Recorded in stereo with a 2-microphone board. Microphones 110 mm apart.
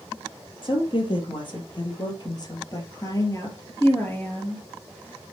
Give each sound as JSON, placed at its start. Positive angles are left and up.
{"t": 0.6, "sound": "a woman speaking", "side_deg": 55, "distance_m": 3.5}